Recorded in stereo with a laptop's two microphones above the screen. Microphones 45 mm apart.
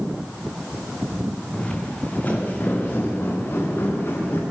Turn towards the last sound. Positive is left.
turn(degrees=60)  # may be behind; listen again after turning